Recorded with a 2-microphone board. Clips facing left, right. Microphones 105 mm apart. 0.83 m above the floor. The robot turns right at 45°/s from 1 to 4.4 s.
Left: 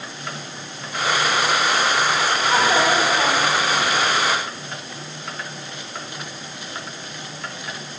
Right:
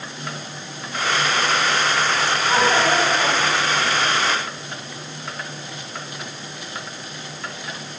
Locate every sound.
2.5 s a child speaking: straight ahead, 4 m; by 3.9 s 60° left, 4 m